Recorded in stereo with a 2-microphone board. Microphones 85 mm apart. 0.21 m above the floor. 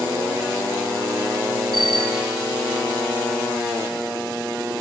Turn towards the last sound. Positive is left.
turn(degrees=-65)  # may be behind; listen again after turning